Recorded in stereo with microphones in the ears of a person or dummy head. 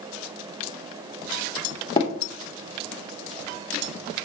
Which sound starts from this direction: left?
Tapping, at 2.0 s.